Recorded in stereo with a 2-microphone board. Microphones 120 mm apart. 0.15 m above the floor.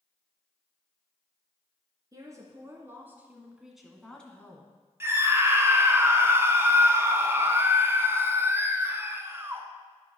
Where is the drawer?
I don't hear a drawer.